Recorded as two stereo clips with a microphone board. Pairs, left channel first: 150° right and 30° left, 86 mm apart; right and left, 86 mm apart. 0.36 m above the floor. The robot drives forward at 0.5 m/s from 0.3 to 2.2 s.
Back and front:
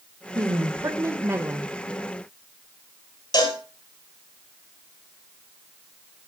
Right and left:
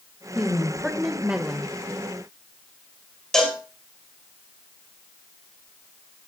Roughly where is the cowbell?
Behind.